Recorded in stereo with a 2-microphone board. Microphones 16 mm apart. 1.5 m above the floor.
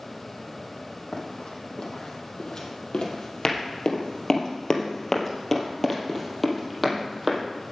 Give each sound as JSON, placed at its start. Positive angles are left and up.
{"t": 1.1, "sound": "running footsteps", "side_deg": 65, "distance_m": 4.0}